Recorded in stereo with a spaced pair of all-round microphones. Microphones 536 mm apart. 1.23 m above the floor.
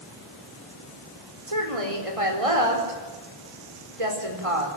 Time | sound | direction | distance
1.5 | a woman speaking | 80° right | 4.5 m